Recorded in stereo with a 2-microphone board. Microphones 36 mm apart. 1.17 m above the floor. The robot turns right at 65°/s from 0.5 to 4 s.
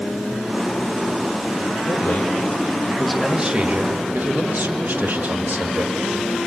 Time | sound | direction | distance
1.9 | a man speaking | 105° left | 1.9 m